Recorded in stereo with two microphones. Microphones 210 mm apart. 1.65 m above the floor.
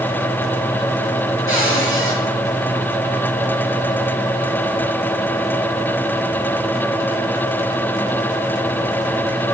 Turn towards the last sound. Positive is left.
turn(degrees=75)  # may be behind; listen again after turning